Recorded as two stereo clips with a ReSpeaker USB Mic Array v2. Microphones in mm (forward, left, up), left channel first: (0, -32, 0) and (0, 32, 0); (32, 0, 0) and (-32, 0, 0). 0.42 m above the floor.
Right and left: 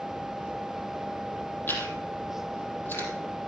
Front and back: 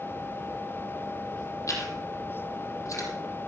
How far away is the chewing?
About 3.5 m.